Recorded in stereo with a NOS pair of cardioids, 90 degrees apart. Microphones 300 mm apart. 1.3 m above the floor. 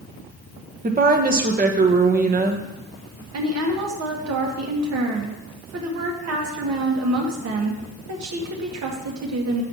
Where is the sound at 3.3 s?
60° right, 1.9 m.